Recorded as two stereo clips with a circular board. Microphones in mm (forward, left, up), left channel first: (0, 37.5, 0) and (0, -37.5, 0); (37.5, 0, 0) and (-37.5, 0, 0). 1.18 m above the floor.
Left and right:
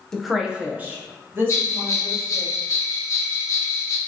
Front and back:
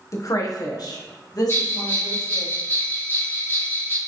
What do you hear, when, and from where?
0.1 s a woman speaking: 10° left, 0.6 m; by 2.5 s 35° right, 2.5 m
1.5 s a bell: 50° left, 1.0 m